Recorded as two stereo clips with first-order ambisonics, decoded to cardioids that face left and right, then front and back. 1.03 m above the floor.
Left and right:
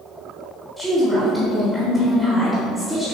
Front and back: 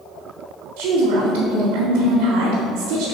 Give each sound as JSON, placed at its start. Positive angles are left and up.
{"t": 0.8, "sound": "a woman speaking", "azimuth_deg": 180, "distance_m": 2.5}